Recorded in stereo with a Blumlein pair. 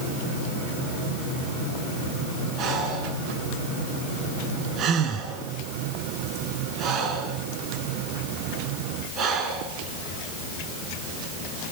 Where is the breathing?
35° right, 4 m.